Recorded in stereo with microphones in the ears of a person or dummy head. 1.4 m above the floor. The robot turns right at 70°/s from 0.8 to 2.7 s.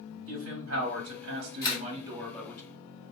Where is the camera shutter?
20° left (ahead or behind), 1.2 m; by 1.8 s 35° left (ahead or behind), 1.2 m.